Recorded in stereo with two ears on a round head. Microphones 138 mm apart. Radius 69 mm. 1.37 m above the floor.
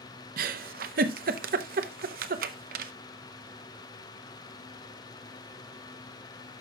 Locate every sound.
0.4 s a giggle: 65° right (ahead or behind), 0.8 m